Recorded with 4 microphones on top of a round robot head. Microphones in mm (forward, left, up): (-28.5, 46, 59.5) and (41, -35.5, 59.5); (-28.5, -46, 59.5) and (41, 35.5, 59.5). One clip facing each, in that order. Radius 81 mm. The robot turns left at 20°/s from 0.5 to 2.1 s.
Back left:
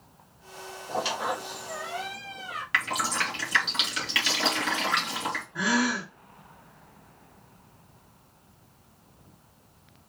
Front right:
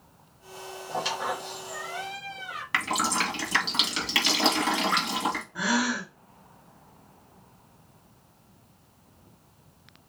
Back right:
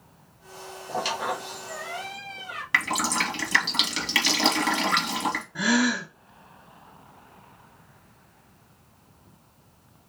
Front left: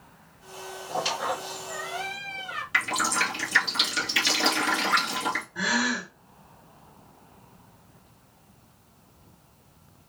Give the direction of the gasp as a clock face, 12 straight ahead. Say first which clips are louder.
Back left 3 dB, back right 7 dB; 5 o'clock.